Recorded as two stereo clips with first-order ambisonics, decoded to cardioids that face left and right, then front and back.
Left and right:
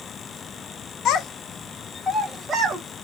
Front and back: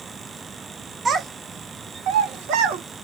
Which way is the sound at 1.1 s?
115° left.